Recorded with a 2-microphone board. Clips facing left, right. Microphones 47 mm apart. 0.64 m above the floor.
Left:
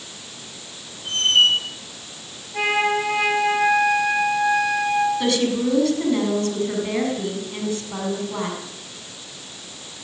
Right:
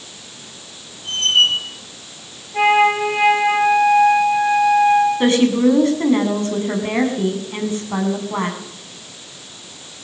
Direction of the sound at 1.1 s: 5° left (ahead or behind).